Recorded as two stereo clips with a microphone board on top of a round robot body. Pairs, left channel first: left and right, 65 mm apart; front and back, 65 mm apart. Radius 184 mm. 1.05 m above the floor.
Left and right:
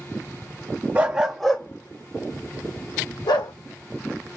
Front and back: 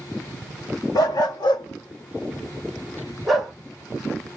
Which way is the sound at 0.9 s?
25° right.